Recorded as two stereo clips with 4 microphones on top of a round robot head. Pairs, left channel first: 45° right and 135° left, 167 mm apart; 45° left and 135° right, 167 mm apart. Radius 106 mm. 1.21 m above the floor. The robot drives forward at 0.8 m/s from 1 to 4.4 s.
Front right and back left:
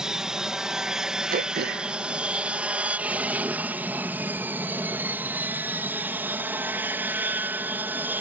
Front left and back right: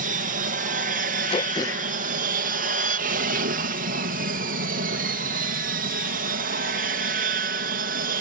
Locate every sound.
0.0 s an aircraft: 140° right; by 8.2 s 145° right
1.3 s throat clearing: 100° left; by 3.1 s 150° left